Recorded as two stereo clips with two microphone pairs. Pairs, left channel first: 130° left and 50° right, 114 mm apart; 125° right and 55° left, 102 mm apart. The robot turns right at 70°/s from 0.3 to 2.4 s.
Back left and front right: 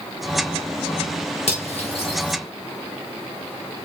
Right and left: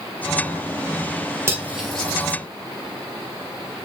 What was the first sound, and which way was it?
Cutlery clinking, 115° left.